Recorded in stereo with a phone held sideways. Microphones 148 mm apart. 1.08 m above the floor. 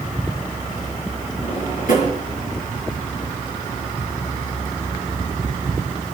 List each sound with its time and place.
1.4 s a drawer: 70° left (ahead or behind), 4 m